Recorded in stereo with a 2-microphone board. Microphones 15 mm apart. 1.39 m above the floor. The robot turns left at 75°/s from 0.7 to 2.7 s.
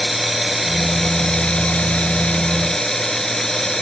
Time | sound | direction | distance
0.0 | running water | 170° right | ?